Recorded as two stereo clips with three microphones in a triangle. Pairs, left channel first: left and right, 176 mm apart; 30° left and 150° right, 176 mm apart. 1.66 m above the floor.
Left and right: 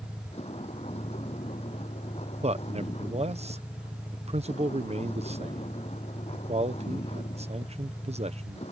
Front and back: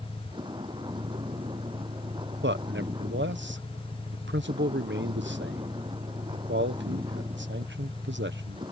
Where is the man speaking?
145° right.